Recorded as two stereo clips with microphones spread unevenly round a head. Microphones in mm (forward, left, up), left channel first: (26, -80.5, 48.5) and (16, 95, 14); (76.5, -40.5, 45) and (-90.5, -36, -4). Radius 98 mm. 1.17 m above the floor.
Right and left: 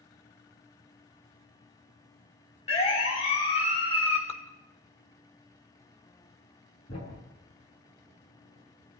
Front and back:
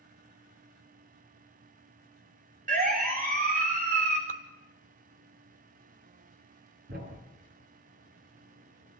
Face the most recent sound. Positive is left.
turn(degrees=-145)